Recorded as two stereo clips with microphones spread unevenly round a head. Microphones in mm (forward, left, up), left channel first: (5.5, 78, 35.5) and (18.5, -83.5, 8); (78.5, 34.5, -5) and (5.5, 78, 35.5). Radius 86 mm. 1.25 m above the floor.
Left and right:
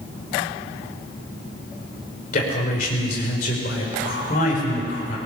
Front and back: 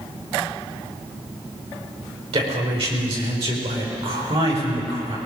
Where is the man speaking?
140° left, 5 m.